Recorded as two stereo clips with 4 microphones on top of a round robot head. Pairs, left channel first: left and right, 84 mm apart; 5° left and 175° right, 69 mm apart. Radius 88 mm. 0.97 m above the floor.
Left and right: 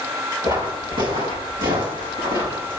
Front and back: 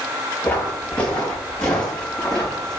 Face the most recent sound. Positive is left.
turn(degrees=-80)